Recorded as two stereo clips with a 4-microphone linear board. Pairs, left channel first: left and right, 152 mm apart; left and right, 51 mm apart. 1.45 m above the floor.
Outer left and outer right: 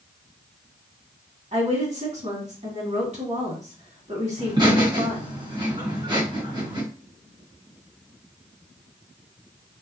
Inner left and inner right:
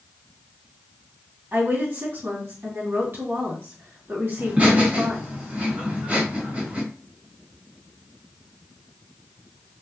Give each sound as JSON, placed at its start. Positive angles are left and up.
{"t": 1.5, "sound": "a woman speaking", "side_deg": -45, "distance_m": 2.0}
{"t": 4.4, "sound": "laughter", "side_deg": -30, "distance_m": 1.6}